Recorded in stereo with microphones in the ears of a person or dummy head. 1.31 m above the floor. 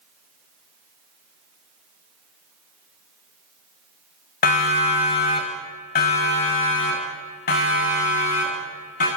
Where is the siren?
45° left (ahead or behind), 4.5 m; by 9.1 s 50° left (ahead or behind), 8.5 m.